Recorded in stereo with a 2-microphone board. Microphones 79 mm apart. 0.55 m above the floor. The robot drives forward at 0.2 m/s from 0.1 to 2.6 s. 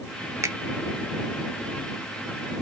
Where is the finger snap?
35° right (ahead or behind), 0.5 m.